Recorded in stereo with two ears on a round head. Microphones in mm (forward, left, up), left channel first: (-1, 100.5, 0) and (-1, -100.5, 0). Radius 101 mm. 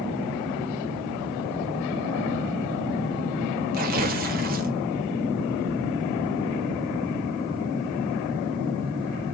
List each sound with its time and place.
3.7 s tearing paper: 40° right (ahead or behind), 1.7 m